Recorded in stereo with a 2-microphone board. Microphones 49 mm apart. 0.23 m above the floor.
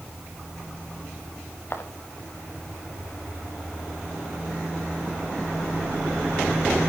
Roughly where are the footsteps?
Left.